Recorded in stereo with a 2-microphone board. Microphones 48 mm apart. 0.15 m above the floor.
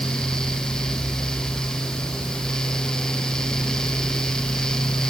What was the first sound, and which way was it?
Only background noise.